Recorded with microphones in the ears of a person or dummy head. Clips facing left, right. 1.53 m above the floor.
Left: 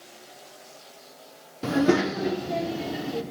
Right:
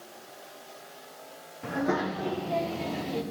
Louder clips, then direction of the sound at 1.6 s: Left 7 dB; 60° left (ahead or behind).